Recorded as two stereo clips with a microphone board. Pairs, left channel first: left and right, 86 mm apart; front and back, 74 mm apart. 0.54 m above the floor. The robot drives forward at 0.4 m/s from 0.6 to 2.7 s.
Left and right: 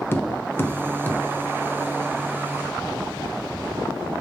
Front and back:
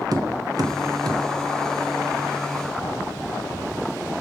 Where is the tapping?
155° left, 0.8 m; by 1.2 s 160° left, 1.0 m.